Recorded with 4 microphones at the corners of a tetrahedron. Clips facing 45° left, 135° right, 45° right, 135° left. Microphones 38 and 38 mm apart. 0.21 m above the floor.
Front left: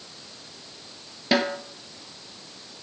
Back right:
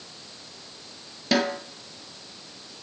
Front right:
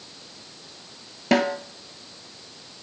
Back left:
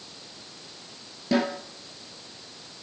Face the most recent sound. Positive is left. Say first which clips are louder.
# front left 1 dB, front right 4 dB
turn(degrees=-30)